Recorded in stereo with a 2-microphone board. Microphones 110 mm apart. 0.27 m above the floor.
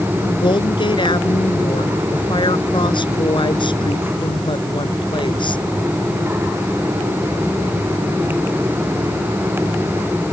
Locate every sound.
0.2 s a woman speaking: 45° left (ahead or behind)